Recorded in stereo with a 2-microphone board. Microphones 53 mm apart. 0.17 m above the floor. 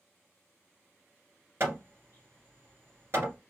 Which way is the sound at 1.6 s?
55° right (ahead or behind).